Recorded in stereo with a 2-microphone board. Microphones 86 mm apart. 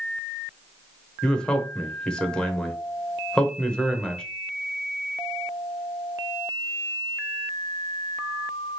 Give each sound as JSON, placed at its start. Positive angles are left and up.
{"t": 1.2, "sound": "a man speaking", "side_deg": 10, "distance_m": 0.8}